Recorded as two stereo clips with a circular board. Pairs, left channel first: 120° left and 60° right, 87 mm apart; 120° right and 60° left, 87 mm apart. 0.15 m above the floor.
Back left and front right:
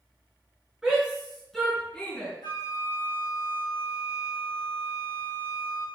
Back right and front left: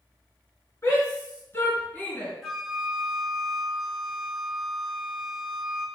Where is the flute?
150° left, 2.0 m.